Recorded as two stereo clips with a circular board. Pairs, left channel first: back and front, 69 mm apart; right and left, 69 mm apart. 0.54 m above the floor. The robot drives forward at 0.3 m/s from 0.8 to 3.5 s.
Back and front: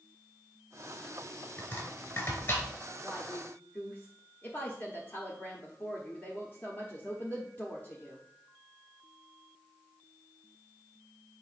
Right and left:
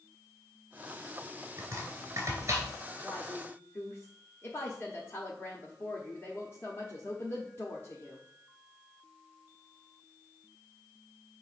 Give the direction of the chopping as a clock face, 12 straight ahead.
8 o'clock.